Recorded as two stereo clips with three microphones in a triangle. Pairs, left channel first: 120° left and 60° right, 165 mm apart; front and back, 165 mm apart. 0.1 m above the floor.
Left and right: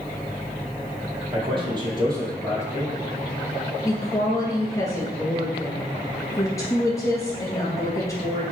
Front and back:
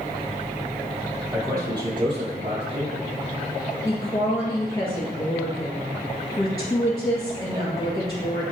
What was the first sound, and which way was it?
A man speaking, 110° right.